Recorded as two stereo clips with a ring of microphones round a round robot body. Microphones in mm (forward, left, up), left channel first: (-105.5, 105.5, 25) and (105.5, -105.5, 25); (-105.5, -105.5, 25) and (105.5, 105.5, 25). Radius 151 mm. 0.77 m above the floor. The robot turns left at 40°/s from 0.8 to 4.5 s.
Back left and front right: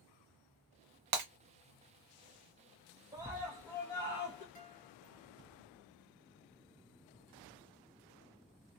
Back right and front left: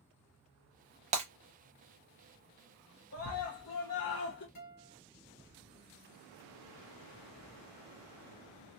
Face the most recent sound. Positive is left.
turn(degrees=-160)